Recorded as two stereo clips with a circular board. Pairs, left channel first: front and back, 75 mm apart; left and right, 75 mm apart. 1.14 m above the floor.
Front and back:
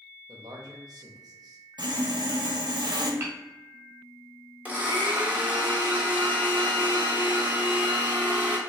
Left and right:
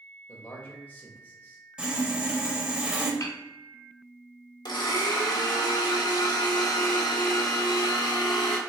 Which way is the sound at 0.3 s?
155° left.